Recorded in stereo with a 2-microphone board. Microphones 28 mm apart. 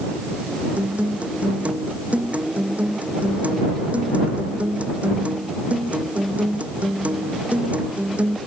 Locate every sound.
0.8 s a guitar: 60° right (ahead or behind)